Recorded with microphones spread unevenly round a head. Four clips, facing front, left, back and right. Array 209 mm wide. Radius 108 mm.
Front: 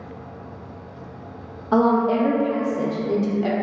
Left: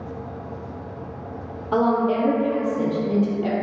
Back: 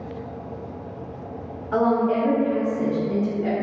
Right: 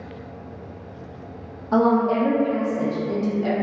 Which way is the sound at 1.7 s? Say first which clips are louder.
Right 1 dB, front 2 dB; 5° right.